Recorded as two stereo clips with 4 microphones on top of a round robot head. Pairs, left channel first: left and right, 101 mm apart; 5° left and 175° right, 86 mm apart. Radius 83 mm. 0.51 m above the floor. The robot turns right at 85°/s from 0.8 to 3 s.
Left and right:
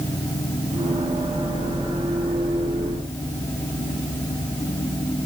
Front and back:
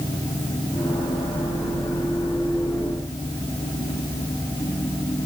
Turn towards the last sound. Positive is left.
No sound to turn to.